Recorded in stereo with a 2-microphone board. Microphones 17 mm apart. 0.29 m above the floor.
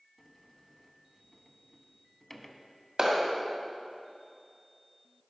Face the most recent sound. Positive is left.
turn(degrees=-45)  # may be behind; listen again after turning